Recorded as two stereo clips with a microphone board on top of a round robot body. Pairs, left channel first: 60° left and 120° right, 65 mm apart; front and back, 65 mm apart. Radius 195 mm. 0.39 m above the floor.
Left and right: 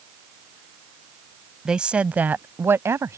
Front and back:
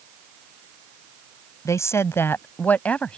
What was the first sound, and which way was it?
A woman speaking, 40° right.